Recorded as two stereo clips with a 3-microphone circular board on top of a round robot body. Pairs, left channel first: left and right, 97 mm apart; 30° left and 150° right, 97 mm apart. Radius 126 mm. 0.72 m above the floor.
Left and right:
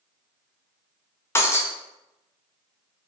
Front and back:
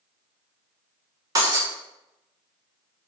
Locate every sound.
1.4 s breaking glass: 155° left, 0.6 m